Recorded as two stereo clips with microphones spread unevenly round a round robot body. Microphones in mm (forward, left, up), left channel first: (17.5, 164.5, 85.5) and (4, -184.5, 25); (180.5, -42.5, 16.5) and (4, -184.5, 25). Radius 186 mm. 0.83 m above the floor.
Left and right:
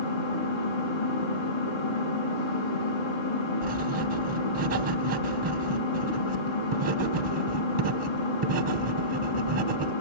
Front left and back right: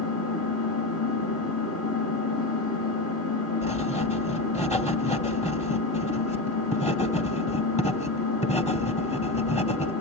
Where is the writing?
25° right, 2.5 m.